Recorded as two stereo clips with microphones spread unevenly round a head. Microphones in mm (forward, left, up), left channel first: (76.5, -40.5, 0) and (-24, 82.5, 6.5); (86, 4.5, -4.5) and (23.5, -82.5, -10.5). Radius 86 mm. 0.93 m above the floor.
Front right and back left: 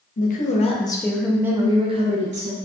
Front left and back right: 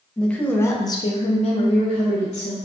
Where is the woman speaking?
30° right, 0.7 m; by 2.5 s 90° left, 0.9 m.